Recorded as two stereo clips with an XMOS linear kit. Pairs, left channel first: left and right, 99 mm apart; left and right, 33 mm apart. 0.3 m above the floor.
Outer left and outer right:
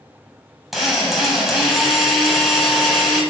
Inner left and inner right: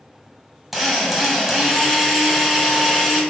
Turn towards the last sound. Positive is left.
turn(degrees=-5)  # may be behind; listen again after turning